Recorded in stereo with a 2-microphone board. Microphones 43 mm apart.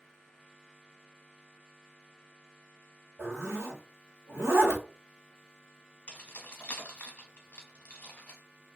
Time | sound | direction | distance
3.2 | a zipper | 85° right | 1.0 m
6.1 | keys jangling | 30° left (ahead or behind) | 1.1 m